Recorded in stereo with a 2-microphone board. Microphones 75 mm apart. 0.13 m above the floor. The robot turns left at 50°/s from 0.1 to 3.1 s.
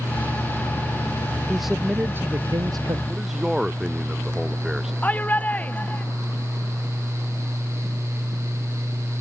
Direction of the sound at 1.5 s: 5° left.